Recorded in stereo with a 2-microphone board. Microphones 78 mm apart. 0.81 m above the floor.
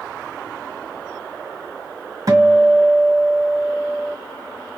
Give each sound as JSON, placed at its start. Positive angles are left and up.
{"t": 2.3, "sound": "a guitar", "side_deg": -50, "distance_m": 1.7}